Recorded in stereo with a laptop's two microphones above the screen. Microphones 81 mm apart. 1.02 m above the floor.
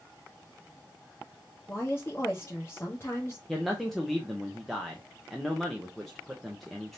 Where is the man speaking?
Centre (ahead or behind), 0.6 m.